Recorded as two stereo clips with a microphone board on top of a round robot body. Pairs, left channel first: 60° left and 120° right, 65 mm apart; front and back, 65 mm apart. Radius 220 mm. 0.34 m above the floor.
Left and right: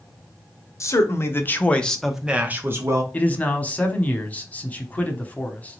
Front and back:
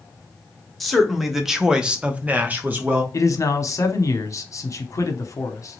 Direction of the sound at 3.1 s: Straight ahead.